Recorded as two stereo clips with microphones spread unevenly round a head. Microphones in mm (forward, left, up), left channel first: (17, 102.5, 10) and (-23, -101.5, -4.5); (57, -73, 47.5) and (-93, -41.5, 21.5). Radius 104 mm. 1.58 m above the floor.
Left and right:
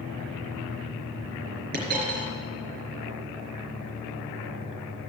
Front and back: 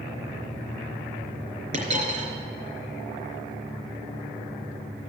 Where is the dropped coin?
145° right, 3.5 m.